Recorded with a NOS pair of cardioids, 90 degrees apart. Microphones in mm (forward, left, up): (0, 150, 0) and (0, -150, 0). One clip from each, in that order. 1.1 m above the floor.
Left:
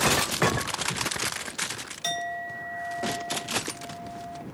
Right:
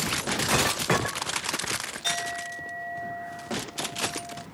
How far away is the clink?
About 2.5 m.